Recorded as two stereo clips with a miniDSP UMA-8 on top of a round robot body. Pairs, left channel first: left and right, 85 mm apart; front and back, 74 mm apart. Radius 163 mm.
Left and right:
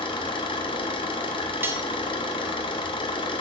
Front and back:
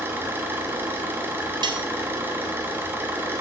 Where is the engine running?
115° left, 1.0 m.